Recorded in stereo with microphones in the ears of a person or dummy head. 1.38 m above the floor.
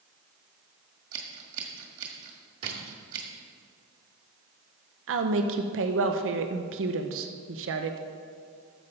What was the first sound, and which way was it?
Scissors, 50° right (ahead or behind).